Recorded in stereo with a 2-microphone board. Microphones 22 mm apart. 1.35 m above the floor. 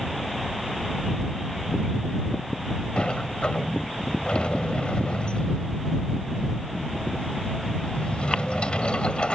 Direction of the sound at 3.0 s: 60° left (ahead or behind).